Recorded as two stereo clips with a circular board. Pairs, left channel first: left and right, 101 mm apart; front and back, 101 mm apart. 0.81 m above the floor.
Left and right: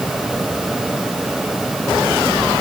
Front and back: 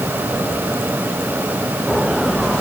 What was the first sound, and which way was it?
Only background noise.